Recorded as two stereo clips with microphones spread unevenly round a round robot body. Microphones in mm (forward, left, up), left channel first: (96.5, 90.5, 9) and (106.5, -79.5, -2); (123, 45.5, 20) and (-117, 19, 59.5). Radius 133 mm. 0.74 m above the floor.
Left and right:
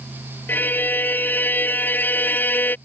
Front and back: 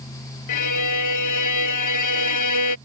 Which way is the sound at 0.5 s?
15° left.